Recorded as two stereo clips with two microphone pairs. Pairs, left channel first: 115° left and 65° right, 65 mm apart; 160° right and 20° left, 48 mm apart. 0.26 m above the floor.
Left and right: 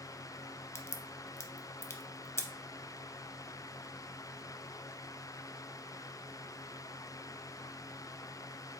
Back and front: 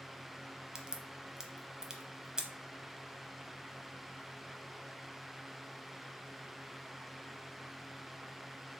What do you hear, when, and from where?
0.8 s a crack: 90° left, 0.6 m